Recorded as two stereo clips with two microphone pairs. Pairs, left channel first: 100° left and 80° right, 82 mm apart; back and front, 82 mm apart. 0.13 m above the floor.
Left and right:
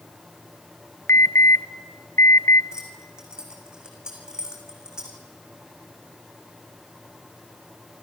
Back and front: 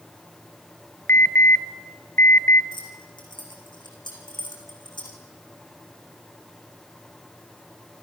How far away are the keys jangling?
About 5 m.